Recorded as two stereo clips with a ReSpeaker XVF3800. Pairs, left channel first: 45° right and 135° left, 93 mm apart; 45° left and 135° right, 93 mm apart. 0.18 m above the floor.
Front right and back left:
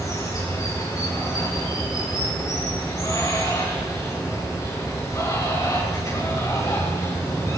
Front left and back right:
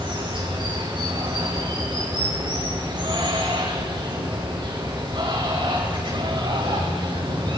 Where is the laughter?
I don't hear laughter.